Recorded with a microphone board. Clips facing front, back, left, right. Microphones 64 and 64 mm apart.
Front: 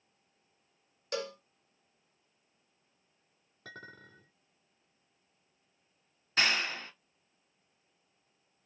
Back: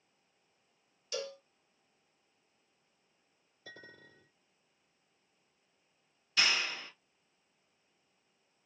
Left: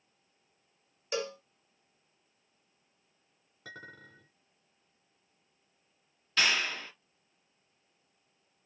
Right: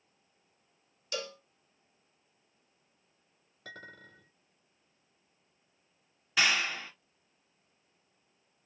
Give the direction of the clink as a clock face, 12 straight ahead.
12 o'clock.